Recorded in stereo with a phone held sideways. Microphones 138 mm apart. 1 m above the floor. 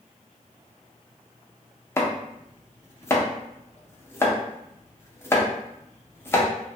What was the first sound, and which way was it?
Chopping, 20° left (ahead or behind).